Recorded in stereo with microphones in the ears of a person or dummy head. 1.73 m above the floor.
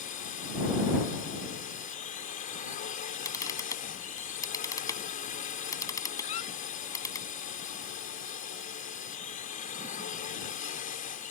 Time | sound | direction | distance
0.0 | a drone | 40° left (ahead or behind) | ?
3.2 | a camera shutter | 15° left (ahead or behind) | ?
6.2 | a squeak | 40° left (ahead or behind) | ?